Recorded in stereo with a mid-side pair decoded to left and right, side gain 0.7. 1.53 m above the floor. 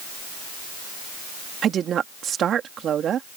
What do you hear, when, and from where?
1.6 s a woman speaking: 40° right